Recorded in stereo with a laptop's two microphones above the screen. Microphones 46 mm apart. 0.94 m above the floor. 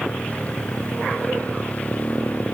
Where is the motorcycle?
30° left (ahead or behind).